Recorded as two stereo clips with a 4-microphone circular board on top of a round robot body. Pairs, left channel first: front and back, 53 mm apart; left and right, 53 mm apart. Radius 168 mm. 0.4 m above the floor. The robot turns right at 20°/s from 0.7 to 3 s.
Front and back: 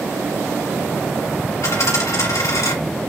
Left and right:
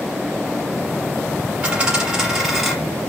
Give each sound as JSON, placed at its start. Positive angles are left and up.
{"t": 1.6, "sound": "a dropped coin", "azimuth_deg": -20, "distance_m": 1.6}